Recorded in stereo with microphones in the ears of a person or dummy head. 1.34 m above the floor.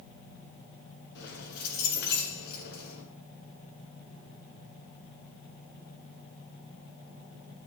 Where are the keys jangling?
60° left (ahead or behind), 9 m.